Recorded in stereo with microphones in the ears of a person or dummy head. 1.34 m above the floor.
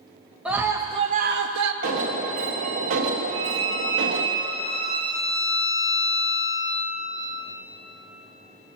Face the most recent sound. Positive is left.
turn(degrees=-30)  # may be behind; listen again after turning